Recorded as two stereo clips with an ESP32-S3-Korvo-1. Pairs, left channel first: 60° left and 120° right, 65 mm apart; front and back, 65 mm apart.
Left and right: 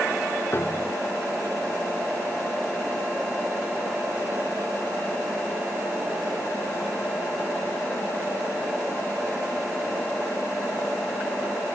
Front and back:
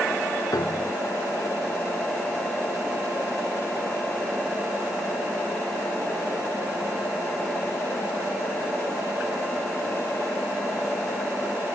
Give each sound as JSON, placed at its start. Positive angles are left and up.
{"t": 0.5, "sound": "a piano", "azimuth_deg": 10}